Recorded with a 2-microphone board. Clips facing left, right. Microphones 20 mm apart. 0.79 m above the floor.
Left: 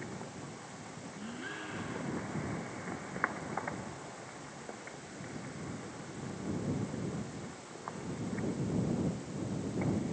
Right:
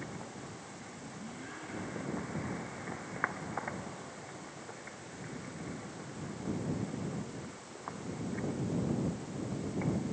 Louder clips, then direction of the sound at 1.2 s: Left 5 dB; 30° left (ahead or behind).